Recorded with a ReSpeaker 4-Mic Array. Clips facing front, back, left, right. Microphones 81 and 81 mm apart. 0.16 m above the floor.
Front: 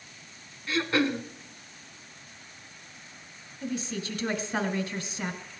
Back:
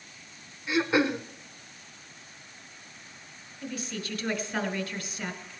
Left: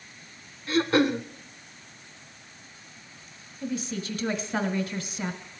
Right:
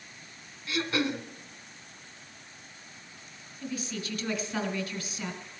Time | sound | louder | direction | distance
0.7 | throat clearing | back 2 dB, left 7 dB | 110° left | 0.6 m
3.6 | a woman speaking | front 3 dB, left 4 dB | 50° left | 1.6 m